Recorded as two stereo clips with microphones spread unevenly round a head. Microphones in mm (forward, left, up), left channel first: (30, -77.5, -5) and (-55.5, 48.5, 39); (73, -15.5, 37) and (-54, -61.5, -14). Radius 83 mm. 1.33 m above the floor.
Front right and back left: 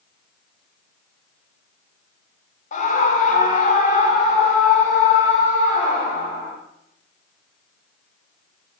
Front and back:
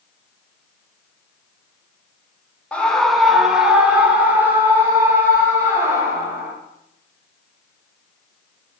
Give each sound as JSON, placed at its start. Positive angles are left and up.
{"t": 2.7, "sound": "a scream", "azimuth_deg": -70, "distance_m": 1.0}